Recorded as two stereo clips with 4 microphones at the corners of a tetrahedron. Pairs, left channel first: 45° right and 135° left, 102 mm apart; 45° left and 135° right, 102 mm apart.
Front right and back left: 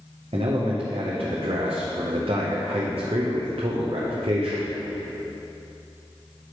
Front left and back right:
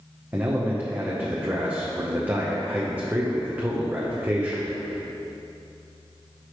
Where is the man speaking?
155° left, 0.7 m.